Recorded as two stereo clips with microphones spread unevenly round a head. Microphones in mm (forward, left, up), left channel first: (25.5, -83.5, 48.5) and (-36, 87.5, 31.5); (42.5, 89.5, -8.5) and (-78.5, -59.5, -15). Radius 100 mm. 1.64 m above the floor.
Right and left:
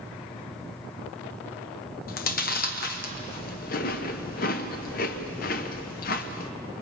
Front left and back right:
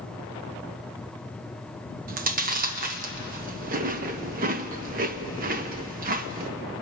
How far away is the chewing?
About 1.0 m.